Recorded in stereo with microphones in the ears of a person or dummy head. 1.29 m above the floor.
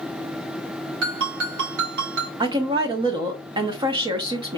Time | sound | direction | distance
1.0 | a ringtone | 65° right (ahead or behind) | 1.5 m
2.4 | a woman speaking | 15° right (ahead or behind) | 0.6 m